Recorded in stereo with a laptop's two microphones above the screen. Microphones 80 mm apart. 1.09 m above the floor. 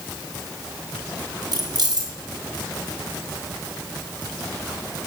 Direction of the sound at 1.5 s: 55° right (ahead or behind).